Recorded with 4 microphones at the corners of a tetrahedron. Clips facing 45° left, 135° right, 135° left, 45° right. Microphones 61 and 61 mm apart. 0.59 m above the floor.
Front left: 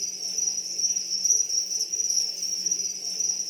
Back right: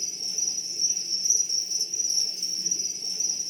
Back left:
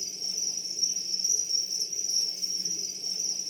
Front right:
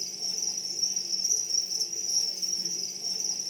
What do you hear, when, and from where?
0.0 s an insect: 35° right, 1.1 m